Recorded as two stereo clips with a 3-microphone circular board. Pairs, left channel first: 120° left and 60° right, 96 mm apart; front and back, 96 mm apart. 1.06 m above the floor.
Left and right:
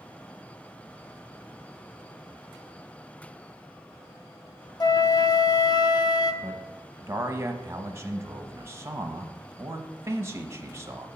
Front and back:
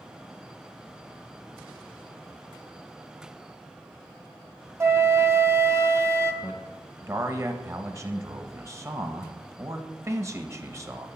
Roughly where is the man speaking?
Behind right.